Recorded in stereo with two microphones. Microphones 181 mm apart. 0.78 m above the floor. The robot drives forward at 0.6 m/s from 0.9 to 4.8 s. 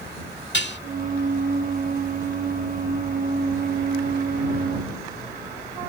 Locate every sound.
0.5 s dishes clattering: 80° left